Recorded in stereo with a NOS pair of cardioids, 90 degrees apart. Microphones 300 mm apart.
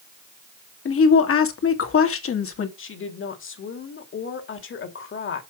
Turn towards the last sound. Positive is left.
turn(degrees=45)